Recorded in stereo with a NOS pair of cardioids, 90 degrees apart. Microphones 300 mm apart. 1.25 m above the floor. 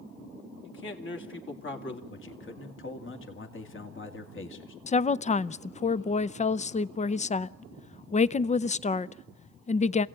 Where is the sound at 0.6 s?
40° left, 2.5 m.